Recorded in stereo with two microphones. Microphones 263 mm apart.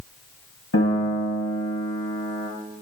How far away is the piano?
About 2.5 m.